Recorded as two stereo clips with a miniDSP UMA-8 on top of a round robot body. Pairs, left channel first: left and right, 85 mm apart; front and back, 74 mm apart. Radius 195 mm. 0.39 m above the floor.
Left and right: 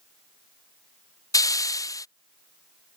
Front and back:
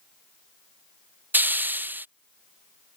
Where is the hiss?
125° left.